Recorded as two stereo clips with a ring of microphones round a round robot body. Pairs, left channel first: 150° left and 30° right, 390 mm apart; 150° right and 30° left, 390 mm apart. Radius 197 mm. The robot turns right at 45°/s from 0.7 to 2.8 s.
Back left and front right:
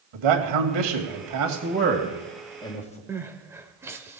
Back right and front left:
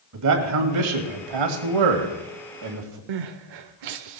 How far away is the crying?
About 0.7 m.